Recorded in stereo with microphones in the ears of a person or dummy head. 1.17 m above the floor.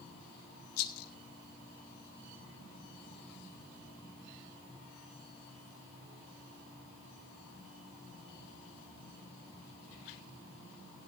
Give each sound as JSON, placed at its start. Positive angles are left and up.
{"t": 0.8, "sound": "a rattle", "side_deg": 80, "distance_m": 1.8}